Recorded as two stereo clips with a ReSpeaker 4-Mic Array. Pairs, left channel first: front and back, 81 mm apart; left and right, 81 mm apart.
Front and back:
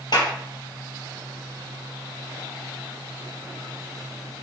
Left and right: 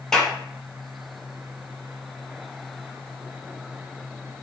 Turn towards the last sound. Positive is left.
turn(degrees=5)